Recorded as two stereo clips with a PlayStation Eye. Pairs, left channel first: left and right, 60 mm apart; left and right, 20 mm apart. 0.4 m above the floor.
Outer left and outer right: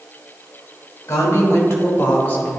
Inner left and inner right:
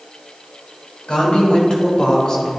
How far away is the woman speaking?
About 2.5 m.